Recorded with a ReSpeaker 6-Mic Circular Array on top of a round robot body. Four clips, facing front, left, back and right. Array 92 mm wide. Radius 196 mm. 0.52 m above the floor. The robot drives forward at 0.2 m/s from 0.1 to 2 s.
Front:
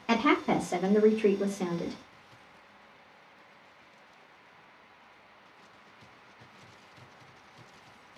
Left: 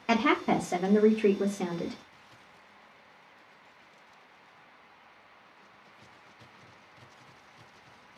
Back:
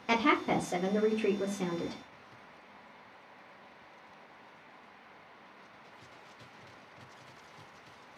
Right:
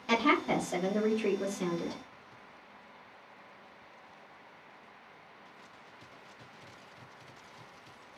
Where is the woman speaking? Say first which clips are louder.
Left 2 dB, front 3 dB; 90° left, 1.3 m; by 2.0 s 120° left, 1.3 m.